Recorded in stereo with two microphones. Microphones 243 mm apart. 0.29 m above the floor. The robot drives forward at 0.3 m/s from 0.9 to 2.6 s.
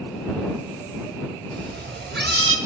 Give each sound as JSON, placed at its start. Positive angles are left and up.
{"t": 1.5, "sound": "a cat meowing", "side_deg": -40, "distance_m": 1.0}